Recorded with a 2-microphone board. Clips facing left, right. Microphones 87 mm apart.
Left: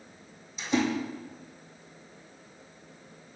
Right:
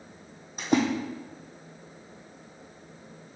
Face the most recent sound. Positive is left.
turn(degrees=-50)  # may be behind; listen again after turning